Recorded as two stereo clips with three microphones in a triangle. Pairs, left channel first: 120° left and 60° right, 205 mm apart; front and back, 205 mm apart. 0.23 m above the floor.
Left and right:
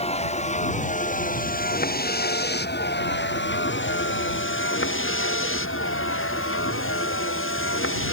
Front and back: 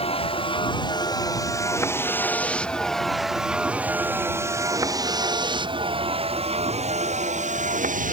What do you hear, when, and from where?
0.0 s a vehicle: 60° left; by 8.1 s 130° left